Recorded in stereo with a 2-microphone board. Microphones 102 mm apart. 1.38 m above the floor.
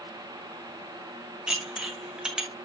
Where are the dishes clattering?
10° right (ahead or behind), 1.4 m.